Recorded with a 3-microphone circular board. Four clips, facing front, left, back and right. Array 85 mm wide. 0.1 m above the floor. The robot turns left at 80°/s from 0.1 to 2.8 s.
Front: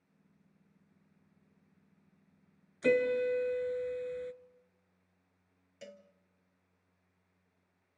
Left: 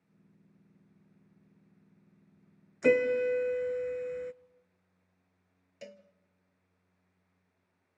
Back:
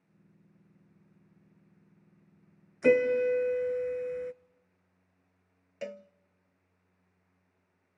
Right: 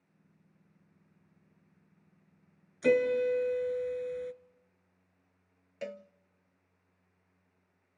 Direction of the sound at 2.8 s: 135° left.